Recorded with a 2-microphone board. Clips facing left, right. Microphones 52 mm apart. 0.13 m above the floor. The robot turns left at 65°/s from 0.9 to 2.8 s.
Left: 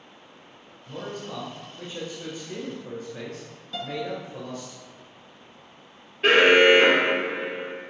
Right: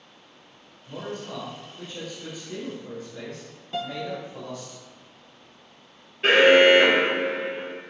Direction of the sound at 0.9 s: 155° left.